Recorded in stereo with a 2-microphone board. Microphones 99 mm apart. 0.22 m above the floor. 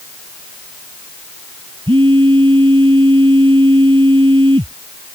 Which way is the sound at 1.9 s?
60° right (ahead or behind).